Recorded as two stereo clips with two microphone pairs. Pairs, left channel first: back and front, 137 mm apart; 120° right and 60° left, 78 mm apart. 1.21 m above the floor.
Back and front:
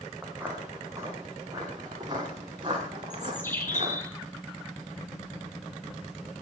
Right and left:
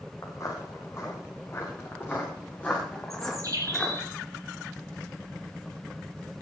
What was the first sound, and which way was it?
Footsteps, 80° right.